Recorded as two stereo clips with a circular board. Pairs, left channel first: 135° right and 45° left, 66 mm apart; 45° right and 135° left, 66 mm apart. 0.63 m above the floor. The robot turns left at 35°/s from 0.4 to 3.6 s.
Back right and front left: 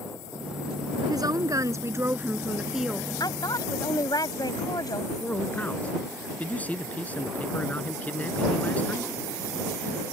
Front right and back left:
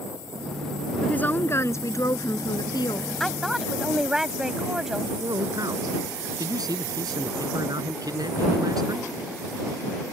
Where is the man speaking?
155° left.